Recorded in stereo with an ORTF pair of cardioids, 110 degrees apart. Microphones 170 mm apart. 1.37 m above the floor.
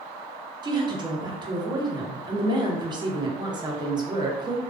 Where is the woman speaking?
25° right, 0.7 m.